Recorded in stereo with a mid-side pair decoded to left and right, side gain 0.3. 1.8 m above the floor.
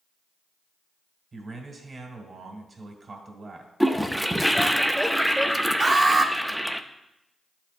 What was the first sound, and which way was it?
A man speaking, 45° right.